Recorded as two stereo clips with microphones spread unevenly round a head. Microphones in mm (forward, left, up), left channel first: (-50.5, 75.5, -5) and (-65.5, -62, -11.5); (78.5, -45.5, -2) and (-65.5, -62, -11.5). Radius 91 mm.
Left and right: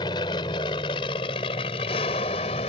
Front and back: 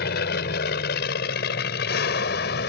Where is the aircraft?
15° left; by 2.7 s 25° left.